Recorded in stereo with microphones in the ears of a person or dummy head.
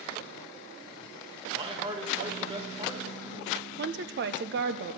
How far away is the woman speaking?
About 0.5 m.